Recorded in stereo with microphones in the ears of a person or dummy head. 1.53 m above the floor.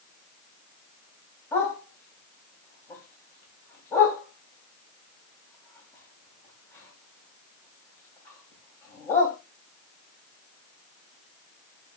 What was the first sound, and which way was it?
A dog barking, 15° left (ahead or behind).